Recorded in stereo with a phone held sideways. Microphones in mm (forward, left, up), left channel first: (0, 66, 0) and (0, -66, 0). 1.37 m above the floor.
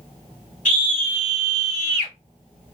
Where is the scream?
80° left, 3 m.